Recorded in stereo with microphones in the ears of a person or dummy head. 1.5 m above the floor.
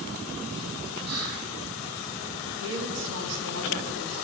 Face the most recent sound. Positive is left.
turn(degrees=-65)  # may be behind; listen again after turning